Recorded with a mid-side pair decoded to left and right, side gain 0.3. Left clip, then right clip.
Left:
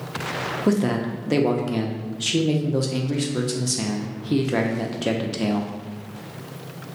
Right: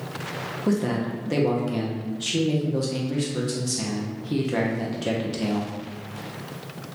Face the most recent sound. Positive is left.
turn(degrees=45)